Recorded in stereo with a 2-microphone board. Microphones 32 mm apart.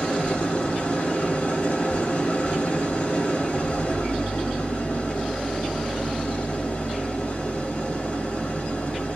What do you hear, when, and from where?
0.0 s an engine running: 50° left (ahead or behind), 0.8 m